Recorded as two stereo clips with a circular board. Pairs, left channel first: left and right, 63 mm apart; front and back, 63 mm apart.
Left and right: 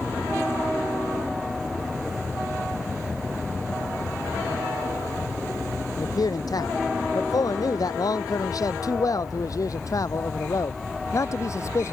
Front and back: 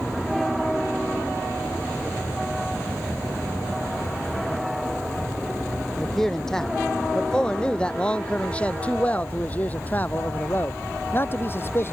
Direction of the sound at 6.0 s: 85° left.